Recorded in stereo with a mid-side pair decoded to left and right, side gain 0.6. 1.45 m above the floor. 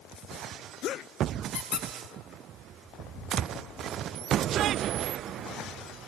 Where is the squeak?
60° left, 1.2 m.